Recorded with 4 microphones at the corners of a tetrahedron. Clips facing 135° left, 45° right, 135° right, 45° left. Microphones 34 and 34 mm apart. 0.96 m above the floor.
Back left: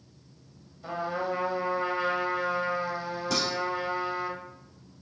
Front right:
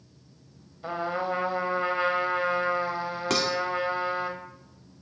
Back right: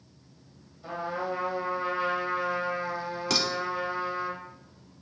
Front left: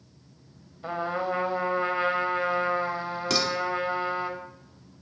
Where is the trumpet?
10° left, 1.0 m.